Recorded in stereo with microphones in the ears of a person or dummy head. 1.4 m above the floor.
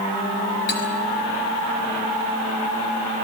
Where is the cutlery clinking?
60° left (ahead or behind), 5 m.